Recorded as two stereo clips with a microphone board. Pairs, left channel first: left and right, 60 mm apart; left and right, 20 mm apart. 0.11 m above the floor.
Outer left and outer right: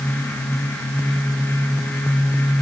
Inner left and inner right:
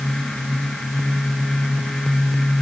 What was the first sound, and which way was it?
Only background noise.